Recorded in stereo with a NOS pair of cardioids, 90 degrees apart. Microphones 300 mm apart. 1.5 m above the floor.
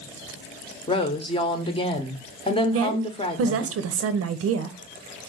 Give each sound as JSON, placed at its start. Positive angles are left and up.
{"t": 0.9, "sound": "a woman speaking", "azimuth_deg": 15, "distance_m": 1.0}
{"t": 2.7, "sound": "a woman speaking", "azimuth_deg": -50, "distance_m": 0.8}